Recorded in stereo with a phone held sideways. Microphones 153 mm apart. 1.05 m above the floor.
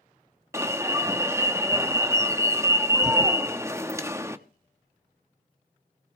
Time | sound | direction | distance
0.5 | an alarm | 20° right (ahead or behind) | 0.8 m